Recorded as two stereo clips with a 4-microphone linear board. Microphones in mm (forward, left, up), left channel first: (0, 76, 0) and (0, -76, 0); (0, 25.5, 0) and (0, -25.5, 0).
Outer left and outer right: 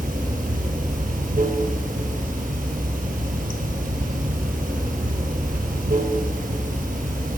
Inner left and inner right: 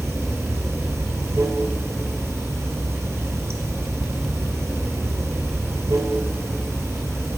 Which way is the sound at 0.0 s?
75° right (ahead or behind).